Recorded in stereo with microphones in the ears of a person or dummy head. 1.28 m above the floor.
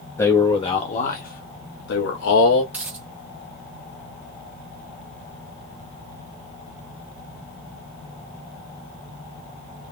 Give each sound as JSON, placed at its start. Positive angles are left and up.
{"t": 0.2, "sound": "a man speaking", "side_deg": 20, "distance_m": 1.2}
{"t": 2.7, "sound": "a dropped coin", "side_deg": -5, "distance_m": 1.2}